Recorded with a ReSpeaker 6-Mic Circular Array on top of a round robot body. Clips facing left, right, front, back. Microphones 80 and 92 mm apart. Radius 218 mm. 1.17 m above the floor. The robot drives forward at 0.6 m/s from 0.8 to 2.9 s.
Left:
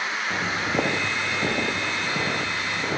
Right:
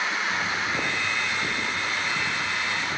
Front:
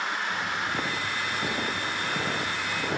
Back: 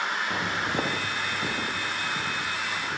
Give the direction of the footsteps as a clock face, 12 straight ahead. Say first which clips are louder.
Left 2 dB, back 2 dB; 8 o'clock.